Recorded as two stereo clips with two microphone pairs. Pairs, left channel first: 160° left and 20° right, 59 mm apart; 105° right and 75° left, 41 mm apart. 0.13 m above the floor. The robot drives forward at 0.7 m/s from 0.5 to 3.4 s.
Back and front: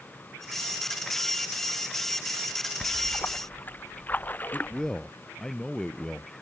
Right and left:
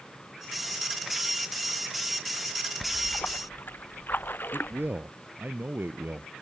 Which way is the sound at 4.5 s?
85° left.